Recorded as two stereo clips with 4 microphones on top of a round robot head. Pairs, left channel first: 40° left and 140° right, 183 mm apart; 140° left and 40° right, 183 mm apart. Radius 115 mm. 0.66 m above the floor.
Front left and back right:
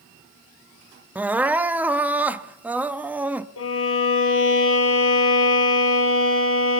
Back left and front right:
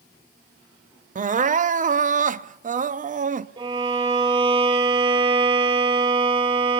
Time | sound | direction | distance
1.1 | crying | 65° right | 0.6 m
3.6 | a violin | 25° left | 5.5 m